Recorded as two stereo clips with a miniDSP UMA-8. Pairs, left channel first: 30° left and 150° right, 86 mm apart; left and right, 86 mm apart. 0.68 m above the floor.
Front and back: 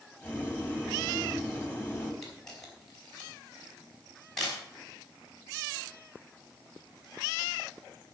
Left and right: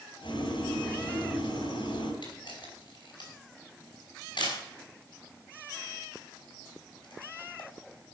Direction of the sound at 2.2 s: 115° left.